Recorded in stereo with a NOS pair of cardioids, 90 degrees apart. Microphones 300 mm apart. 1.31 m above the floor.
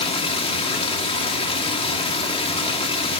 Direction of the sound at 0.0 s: 20° left.